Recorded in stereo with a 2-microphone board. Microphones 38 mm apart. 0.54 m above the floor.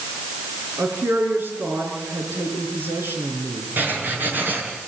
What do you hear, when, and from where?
0.8 s a woman speaking: 80° right, 6 m
3.8 s writing: 55° right (ahead or behind), 5.5 m